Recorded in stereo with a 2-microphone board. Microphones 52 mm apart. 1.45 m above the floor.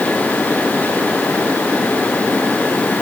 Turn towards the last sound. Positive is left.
No sound to turn to.